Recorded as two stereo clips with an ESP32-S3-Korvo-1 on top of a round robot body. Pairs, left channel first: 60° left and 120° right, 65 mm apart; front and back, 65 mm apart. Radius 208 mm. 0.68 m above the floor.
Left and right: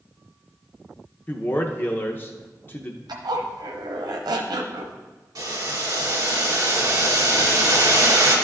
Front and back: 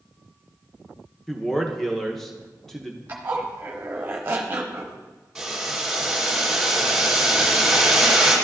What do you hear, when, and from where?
1.3 s a man speaking: 80° left, 0.9 m
3.1 s a zipper: 115° right, 0.8 m
5.3 s boiling: 95° right, 2.5 m